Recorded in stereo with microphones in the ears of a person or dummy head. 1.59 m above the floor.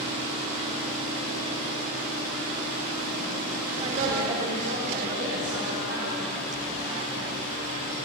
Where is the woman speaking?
30° right (ahead or behind), 1.4 m; by 6.3 s 90° right, 4 m.